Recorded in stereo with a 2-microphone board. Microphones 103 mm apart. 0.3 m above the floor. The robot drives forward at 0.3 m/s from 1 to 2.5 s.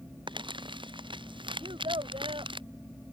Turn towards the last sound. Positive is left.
turn(degrees=-60)  # may be behind; listen again after turning